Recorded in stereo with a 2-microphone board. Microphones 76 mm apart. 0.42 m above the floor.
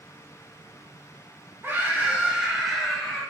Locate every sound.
1.6 s a scream: 30° right (ahead or behind), 1.3 m; by 3.2 s 10° left (ahead or behind), 1.6 m